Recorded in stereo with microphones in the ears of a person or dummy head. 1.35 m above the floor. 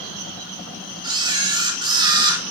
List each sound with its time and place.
1.0 s a camera shutter: 30° right (ahead or behind), 5.5 m